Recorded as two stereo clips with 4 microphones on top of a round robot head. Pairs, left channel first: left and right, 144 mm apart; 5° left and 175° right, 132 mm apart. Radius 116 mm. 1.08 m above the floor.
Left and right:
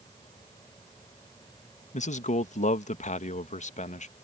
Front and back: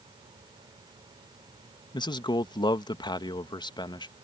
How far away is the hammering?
I don't hear hammering.